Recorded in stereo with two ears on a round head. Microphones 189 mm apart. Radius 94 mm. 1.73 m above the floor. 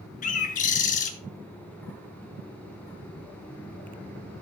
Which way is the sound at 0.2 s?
40° left (ahead or behind).